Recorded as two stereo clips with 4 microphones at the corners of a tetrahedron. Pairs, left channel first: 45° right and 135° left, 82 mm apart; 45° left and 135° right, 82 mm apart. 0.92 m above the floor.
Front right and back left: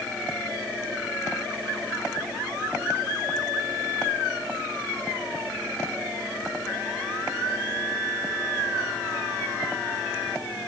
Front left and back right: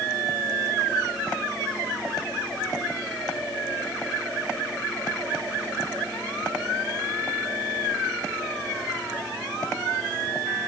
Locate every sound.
Only background noise.